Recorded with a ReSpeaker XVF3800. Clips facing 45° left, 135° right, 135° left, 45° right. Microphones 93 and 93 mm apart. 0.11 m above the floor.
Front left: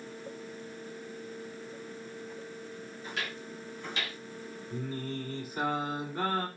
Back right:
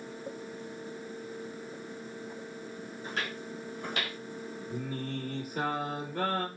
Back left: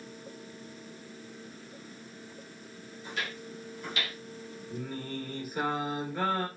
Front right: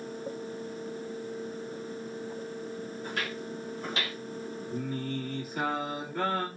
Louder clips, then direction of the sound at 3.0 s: Back right 2 dB, front right 1 dB; 90° right.